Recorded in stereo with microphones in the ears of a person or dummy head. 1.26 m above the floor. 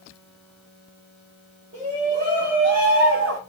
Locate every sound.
1.7 s a shout: 45° right (ahead or behind), 2.5 m; by 3.4 s 85° right, 1.3 m